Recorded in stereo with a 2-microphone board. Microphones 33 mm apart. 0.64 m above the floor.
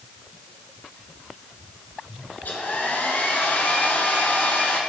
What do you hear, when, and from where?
2.4 s a hair dryer: 65° left (ahead or behind), 1.4 m